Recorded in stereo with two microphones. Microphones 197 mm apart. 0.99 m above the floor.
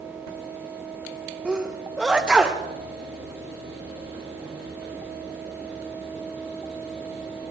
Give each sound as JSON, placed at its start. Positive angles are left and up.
{"t": 1.4, "sound": "a sneeze", "side_deg": -5, "distance_m": 0.8}